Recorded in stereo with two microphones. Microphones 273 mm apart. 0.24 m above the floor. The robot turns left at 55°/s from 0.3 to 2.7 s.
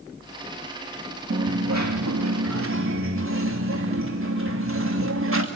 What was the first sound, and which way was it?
A dropped coin, 50° right.